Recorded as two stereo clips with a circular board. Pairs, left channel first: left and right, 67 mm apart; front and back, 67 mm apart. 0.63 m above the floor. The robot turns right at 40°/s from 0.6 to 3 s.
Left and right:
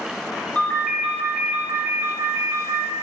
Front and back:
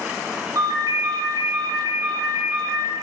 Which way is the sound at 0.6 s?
160° left.